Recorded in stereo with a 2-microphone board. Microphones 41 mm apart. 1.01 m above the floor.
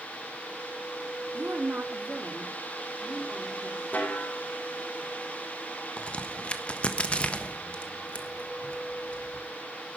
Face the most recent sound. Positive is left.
turn(degrees=30)  # may be behind; listen again after turning